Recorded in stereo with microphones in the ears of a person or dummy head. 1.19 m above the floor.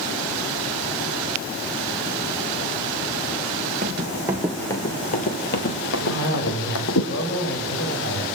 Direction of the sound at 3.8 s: 30° right (ahead or behind).